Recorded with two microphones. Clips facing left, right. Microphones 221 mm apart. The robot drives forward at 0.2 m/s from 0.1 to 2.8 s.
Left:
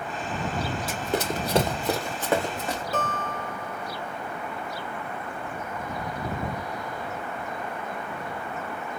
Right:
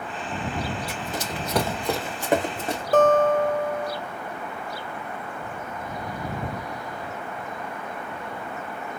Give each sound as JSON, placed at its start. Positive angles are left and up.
{"t": 0.9, "sound": "running footsteps", "side_deg": 75, "distance_m": 0.9}
{"t": 2.9, "sound": "a guitar", "side_deg": -45, "distance_m": 1.5}